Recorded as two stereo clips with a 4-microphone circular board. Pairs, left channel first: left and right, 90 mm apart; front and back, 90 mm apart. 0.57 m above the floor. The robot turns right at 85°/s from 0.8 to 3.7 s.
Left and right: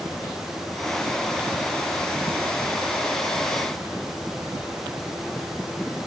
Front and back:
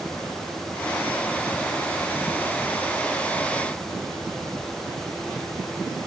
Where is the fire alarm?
I don't hear a fire alarm.